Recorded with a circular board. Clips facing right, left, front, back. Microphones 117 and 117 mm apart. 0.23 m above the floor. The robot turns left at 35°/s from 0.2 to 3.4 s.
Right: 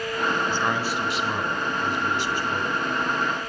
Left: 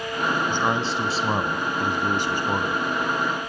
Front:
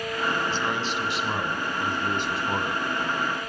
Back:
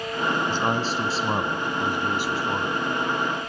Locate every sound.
0.5 s a man speaking: 160° left, 1.4 m; by 2.8 s 75° left, 1.4 m